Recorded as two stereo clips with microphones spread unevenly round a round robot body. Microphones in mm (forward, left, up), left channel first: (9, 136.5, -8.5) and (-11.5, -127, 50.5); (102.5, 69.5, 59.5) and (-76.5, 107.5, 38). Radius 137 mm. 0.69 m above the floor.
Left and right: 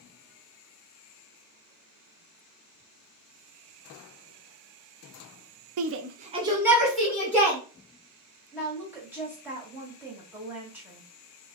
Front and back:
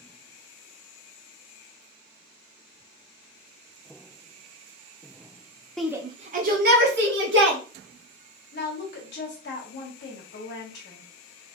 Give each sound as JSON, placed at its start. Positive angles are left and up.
{"t": 5.8, "sound": "a shout", "azimuth_deg": -105, "distance_m": 0.6}
{"t": 8.5, "sound": "a woman speaking", "azimuth_deg": -5, "distance_m": 1.3}